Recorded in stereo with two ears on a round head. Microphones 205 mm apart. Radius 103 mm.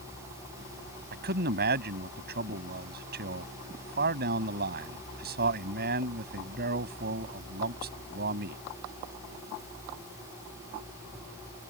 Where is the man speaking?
50° right (ahead or behind).